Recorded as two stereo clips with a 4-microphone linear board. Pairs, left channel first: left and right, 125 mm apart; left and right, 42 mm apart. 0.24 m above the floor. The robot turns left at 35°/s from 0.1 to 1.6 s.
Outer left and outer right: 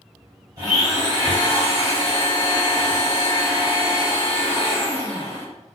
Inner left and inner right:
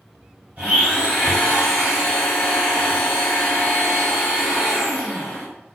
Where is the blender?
95° right, 1.5 m; by 5.5 s 135° right, 1.5 m.